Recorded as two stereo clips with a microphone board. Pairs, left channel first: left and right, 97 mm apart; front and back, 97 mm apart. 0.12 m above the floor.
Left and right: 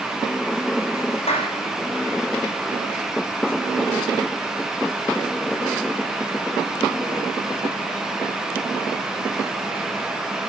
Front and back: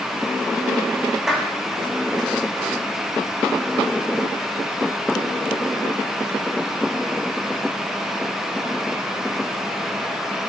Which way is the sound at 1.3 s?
95° left.